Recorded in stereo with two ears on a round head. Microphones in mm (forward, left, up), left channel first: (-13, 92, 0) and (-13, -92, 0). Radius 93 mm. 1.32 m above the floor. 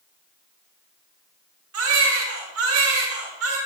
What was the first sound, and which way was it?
A baby crying, 85° right.